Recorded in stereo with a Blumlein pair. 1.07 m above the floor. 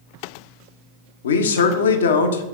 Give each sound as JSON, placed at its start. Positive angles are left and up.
{"t": 1.2, "sound": "a man speaking", "azimuth_deg": 65, "distance_m": 0.7}